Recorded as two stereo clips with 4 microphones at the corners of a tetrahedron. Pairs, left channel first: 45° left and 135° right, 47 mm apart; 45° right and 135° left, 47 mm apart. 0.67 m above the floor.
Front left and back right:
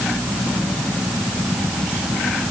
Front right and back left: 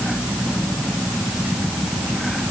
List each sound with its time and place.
Only background noise.